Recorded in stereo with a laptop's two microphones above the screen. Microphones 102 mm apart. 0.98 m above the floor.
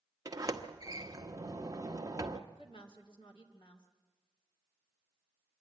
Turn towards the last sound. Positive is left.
turn(degrees=55)  # may be behind; listen again after turning